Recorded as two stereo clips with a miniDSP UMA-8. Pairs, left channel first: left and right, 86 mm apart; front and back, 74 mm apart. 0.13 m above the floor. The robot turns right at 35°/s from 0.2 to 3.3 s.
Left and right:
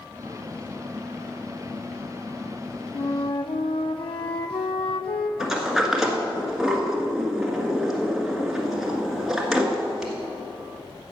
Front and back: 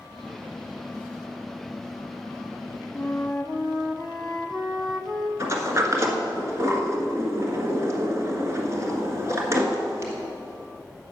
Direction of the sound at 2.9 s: 75° left.